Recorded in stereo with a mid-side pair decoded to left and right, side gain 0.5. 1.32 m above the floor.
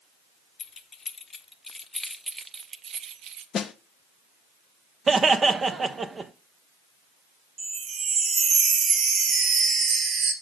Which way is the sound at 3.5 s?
50° left.